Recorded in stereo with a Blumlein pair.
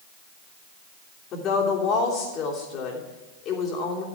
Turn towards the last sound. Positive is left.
turn(degrees=30)